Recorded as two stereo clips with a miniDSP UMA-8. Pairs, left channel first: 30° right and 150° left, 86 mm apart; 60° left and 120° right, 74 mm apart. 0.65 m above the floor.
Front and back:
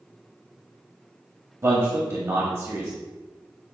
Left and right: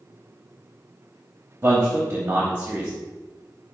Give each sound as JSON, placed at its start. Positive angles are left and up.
{"t": 1.6, "sound": "a man speaking", "azimuth_deg": -175, "distance_m": 0.8}